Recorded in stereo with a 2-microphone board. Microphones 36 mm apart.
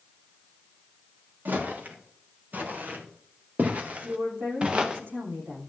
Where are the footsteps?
65° right (ahead or behind), 5 m; by 5.0 s 25° right (ahead or behind), 1.9 m.